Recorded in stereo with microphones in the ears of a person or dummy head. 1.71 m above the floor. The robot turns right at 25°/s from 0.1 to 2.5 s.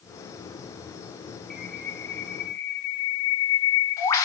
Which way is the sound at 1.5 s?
5° left (ahead or behind).